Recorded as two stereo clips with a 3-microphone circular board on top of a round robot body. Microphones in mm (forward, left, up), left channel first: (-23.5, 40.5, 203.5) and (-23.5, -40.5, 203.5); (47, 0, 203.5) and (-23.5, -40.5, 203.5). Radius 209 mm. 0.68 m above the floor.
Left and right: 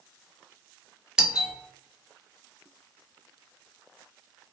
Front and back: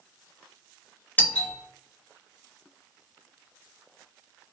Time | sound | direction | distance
1.2 | a doorbell | 20° right | 1.0 m